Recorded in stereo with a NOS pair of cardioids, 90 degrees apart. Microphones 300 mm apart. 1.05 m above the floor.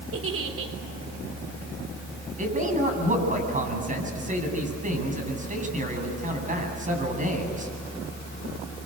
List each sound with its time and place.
0.1 s a giggle: 55° right, 4 m
2.4 s a man speaking: 25° right, 8 m